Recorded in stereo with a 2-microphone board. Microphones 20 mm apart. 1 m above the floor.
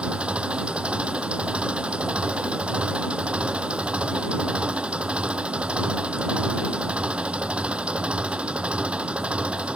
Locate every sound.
0.0 s an engine running: 75° right (ahead or behind)